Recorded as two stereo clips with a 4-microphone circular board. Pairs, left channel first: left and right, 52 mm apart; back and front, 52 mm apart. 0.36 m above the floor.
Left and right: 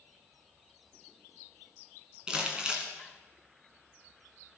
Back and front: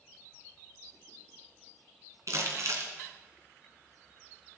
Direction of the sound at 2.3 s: 15° right.